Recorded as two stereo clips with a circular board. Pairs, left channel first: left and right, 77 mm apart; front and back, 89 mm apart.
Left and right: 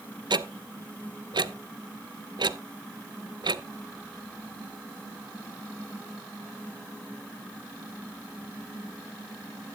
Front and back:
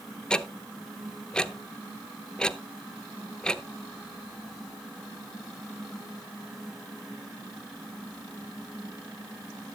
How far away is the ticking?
About 0.5 m.